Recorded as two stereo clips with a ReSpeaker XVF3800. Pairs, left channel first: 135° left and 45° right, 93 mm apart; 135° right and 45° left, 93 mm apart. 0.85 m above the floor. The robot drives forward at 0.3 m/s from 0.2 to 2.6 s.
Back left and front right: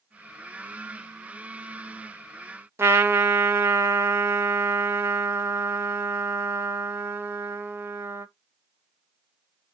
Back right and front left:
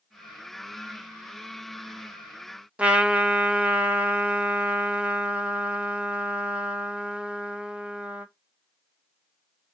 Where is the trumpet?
20° right, 0.6 m.